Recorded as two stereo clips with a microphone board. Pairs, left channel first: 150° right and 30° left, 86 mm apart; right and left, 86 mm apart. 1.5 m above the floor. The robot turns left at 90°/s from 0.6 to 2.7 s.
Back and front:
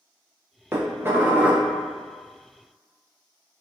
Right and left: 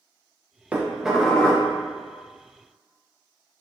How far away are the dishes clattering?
About 0.6 m.